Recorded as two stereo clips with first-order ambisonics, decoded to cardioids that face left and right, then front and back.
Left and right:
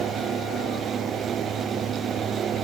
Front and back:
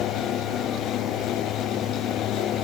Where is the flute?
I don't hear a flute.